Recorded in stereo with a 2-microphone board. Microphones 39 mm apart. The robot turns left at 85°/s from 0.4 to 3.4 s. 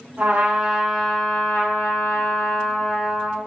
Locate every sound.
0.2 s a trumpet: 130° right, 1.7 m; by 3.4 s 25° right, 1.7 m